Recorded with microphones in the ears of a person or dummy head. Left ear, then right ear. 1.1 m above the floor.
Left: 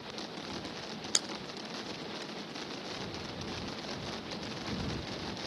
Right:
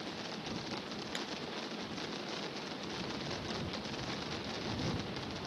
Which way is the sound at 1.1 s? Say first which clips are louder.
Left 8 dB; 45° left (ahead or behind).